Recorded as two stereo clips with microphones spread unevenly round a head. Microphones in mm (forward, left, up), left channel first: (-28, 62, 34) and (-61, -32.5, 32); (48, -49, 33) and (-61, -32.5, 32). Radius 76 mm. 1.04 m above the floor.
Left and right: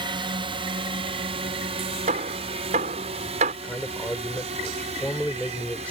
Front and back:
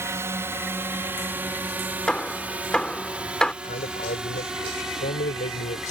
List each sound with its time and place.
0.0 s a drone: 130° right; by 5.9 s 105° right
2.1 s hammering: 90° right
3.6 s a man speaking: 10° right